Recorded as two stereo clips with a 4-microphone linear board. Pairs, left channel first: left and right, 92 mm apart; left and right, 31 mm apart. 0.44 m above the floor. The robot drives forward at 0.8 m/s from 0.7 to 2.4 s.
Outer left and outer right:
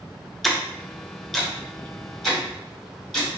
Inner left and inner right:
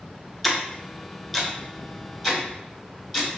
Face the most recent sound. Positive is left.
turn(degrees=0)  # may be behind; listen again after turning